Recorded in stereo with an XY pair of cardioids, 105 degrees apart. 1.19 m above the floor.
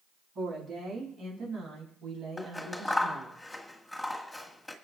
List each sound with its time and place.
0.3 s a woman speaking: 60° right, 7.5 m; by 3.4 s 80° right, 7 m
2.4 s scissors: 5° left, 1.6 m